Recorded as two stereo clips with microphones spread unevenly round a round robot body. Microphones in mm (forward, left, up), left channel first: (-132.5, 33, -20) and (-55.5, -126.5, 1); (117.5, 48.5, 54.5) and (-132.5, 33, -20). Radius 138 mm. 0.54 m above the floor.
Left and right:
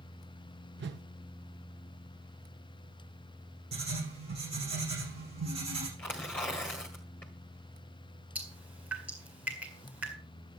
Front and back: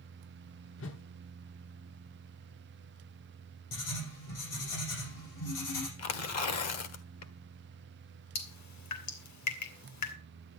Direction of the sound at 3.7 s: 15° right.